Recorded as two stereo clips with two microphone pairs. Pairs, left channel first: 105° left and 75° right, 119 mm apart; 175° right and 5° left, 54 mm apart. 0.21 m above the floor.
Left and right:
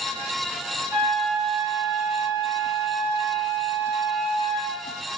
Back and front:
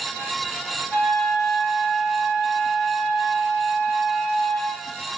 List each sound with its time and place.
0.9 s a flute: 145° right, 1.4 m